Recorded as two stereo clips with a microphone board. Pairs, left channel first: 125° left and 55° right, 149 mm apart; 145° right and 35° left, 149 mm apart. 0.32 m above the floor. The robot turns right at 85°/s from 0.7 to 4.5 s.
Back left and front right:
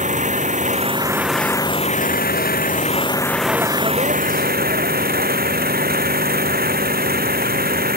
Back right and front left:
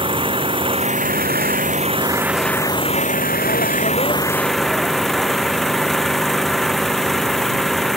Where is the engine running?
20° right; by 8.0 s 55° right.